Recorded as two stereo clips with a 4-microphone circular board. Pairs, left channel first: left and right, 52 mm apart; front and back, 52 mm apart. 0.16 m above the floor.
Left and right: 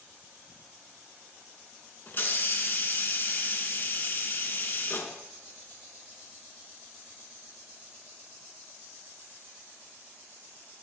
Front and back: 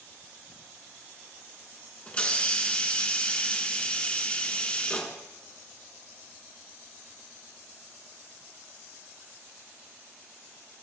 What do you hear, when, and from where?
2.1 s a hiss: 60° left, 1.0 m